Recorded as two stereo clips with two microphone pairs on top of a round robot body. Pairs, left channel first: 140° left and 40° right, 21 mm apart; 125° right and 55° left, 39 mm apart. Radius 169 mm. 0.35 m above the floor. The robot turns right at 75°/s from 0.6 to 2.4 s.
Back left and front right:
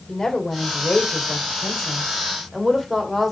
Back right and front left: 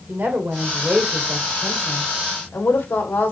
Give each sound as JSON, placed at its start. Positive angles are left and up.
{"t": 0.1, "sound": "a woman speaking", "azimuth_deg": 80, "distance_m": 2.5}